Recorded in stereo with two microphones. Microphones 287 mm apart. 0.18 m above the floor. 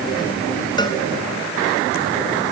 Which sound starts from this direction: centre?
A cowbell, at 0.8 s.